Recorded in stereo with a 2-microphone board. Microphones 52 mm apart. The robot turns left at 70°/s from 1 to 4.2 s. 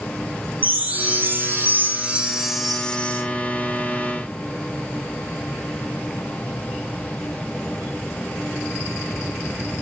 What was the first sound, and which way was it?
A chime, 65° right.